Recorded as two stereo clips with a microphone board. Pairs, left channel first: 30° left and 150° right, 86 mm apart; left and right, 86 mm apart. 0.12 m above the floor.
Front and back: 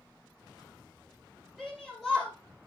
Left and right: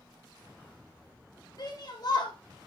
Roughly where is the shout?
Behind left.